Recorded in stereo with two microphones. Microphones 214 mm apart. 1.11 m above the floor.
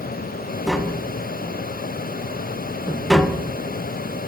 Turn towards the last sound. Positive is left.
turn(degrees=0)  # may be behind; listen again after turning